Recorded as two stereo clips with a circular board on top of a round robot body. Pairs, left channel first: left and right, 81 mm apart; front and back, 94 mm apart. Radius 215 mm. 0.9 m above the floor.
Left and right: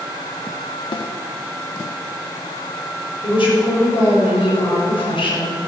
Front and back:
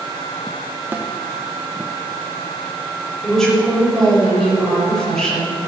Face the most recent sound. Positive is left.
turn(degrees=85)